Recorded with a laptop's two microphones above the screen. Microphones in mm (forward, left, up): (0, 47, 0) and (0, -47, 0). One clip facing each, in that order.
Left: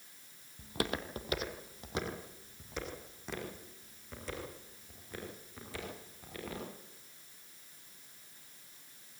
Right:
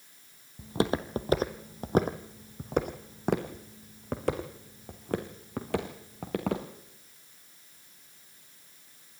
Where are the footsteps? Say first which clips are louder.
Right 8 dB; 25° right (ahead or behind), 1.2 m; by 6.7 s 70° right (ahead or behind), 3.5 m.